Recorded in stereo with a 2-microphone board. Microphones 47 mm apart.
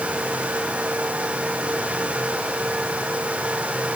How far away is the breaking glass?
I don't hear breaking glass.